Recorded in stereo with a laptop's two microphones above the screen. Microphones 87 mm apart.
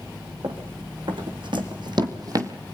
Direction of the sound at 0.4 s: 75° right (ahead or behind).